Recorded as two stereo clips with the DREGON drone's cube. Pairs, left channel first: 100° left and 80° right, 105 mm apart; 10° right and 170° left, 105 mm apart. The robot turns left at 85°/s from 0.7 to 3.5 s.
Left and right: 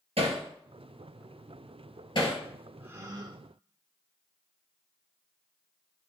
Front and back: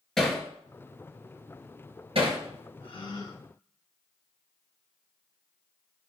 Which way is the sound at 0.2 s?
95° right.